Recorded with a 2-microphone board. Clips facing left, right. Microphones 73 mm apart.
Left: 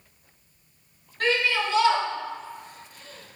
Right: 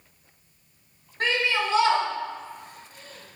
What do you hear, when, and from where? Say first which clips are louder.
1.2 s a shout: left 1 dB; 25° right (ahead or behind), 1.1 m; by 3.4 s 65° right (ahead or behind), 2 m